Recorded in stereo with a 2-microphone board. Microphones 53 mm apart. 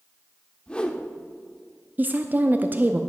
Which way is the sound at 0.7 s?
20° left (ahead or behind).